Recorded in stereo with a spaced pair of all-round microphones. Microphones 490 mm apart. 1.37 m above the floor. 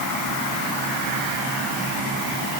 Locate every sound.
Only background noise.